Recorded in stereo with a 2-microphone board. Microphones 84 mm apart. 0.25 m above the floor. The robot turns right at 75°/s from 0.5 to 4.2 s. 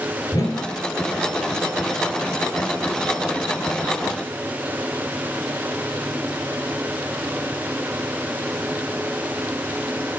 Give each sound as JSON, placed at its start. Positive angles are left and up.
{"t": 0.3, "sound": "a whoosh", "side_deg": 40, "distance_m": 0.7}